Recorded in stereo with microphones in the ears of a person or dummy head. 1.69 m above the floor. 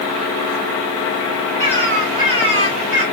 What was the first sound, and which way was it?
A bird, 35° right (ahead or behind).